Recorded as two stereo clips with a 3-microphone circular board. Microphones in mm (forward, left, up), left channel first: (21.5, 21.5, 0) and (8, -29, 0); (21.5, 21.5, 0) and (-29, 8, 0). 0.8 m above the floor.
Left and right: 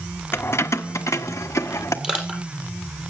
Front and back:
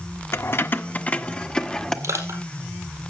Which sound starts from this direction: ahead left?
Keys jangling, at 0.3 s.